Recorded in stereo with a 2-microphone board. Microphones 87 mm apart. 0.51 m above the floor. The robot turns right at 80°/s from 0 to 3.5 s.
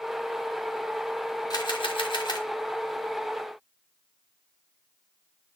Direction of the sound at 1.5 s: 55° left.